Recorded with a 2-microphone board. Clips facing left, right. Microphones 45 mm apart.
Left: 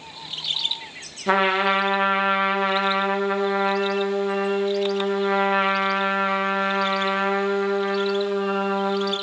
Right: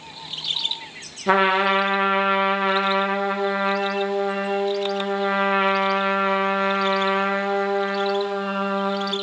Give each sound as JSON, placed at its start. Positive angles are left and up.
{"t": 1.3, "sound": "a trumpet", "side_deg": -10, "distance_m": 1.3}